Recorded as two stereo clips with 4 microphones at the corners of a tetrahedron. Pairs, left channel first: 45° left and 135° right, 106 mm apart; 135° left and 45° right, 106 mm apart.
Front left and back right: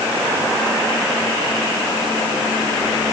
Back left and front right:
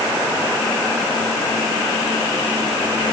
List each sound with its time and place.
Only background noise.